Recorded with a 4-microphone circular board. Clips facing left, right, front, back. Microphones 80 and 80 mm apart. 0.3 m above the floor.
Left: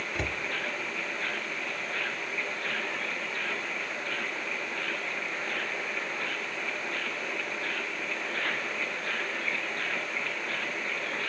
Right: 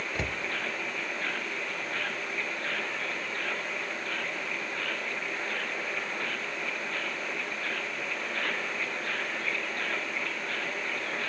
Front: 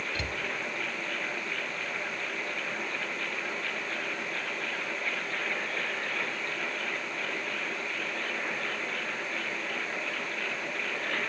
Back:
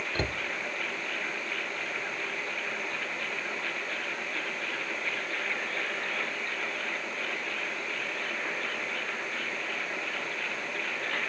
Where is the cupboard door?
Straight behind, 0.6 m.